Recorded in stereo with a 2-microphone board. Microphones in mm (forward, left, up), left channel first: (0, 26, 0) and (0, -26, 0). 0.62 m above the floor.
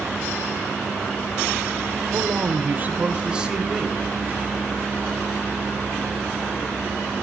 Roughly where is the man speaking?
Right.